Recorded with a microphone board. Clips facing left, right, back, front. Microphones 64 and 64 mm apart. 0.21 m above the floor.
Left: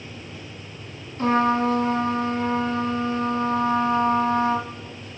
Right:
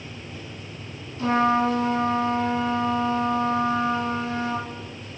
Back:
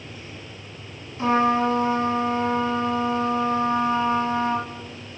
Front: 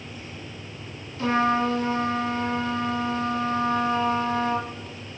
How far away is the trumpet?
About 1.8 m.